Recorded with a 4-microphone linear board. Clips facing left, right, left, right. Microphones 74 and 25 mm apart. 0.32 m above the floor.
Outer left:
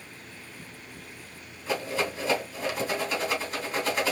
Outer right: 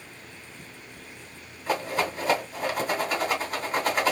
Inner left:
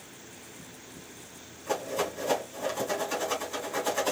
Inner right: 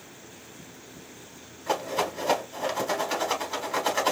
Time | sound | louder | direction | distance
1.7 | a rattle | outer right 2 dB, inner right 3 dB | 45° right (ahead or behind) | 2.5 m